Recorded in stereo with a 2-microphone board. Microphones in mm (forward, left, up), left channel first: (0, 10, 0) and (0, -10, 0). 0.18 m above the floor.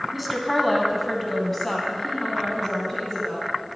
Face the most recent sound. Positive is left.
turn(degrees=25)  # may be behind; listen again after turning